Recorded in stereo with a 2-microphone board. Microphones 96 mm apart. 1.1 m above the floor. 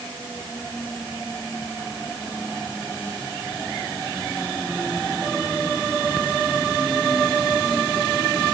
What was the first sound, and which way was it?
Only background noise.